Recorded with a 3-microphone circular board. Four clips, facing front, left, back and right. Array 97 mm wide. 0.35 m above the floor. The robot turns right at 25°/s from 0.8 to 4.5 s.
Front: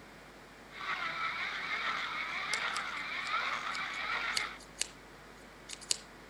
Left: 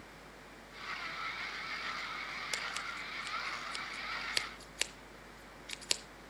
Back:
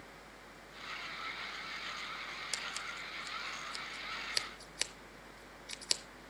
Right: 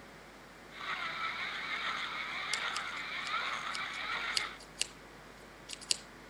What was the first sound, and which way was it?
Scissors, 60° left.